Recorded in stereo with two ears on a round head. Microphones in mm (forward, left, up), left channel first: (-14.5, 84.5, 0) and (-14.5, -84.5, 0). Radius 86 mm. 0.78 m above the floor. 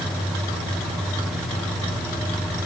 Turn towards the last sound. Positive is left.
No sound to turn to.